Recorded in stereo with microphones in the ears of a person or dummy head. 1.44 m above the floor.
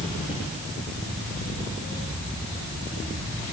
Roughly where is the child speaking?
I don't hear a child speaking.